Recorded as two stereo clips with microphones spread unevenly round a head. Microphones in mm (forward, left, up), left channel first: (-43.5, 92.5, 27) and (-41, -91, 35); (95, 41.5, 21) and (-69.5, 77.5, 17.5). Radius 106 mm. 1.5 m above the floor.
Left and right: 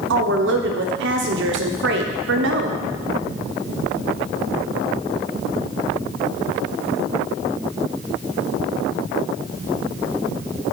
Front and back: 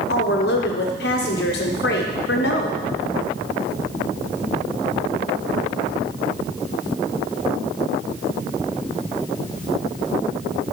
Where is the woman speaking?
55° right, 0.8 m.